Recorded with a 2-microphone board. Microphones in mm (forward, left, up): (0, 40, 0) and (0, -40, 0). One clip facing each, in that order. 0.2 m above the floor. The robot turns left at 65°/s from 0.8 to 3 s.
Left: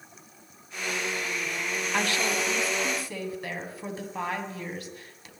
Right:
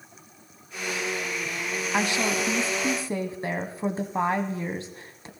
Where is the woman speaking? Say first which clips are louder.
Right 2 dB; 30° right, 1.1 m; by 5.3 s 100° right, 1.1 m.